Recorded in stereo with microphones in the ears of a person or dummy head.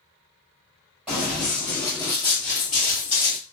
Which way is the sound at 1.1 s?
Centre (ahead or behind).